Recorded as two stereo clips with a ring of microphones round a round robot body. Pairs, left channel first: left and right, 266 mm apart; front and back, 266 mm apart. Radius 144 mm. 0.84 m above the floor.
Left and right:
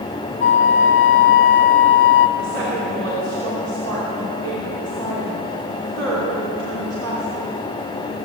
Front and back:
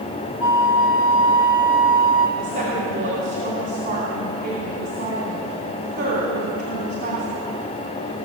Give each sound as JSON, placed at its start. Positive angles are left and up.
{"t": 0.4, "sound": "a flute", "azimuth_deg": 45, "distance_m": 0.8}
{"t": 2.4, "sound": "a woman speaking", "azimuth_deg": -135, "distance_m": 3.0}